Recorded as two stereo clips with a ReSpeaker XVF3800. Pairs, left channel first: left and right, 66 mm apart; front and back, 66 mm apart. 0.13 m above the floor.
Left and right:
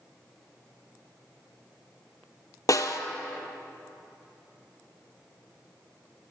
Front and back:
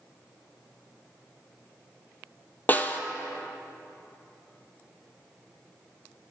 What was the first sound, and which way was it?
A snare drum, 60° left.